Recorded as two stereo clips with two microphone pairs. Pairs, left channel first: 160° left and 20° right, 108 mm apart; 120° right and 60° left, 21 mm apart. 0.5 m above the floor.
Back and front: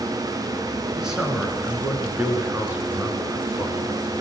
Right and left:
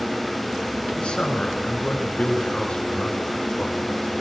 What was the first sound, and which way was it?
A man speaking, 105° right.